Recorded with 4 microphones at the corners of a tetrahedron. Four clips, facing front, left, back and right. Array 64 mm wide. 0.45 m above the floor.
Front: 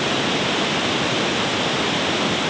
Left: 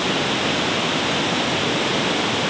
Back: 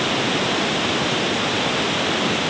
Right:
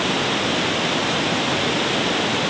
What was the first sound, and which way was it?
Only background noise.